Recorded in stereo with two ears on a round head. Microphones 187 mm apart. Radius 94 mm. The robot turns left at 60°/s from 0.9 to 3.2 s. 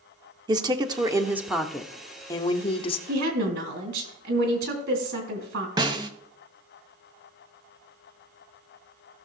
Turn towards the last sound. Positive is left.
turn(degrees=-20)  # may be behind; listen again after turning